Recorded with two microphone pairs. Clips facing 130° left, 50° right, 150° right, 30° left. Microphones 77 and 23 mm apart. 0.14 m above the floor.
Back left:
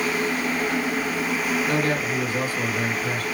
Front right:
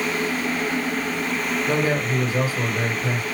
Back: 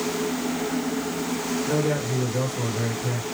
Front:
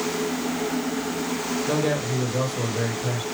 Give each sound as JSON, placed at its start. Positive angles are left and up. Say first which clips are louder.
{"t": 1.7, "sound": "a man speaking", "louder": "front right 1 dB, front 1 dB", "azimuth_deg": 20, "distance_m": 3.5}